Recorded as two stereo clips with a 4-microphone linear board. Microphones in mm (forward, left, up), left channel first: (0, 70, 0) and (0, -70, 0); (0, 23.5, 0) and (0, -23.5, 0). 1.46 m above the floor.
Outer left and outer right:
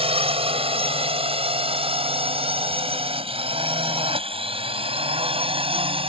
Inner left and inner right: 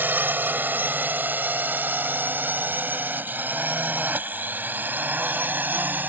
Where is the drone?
45° right (ahead or behind); by 6.1 s 40° right (ahead or behind).